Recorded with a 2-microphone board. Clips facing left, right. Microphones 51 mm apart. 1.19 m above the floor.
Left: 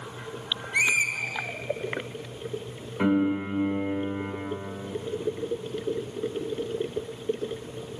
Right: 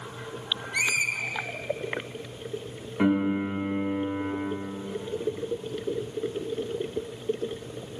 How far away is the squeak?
About 0.9 m.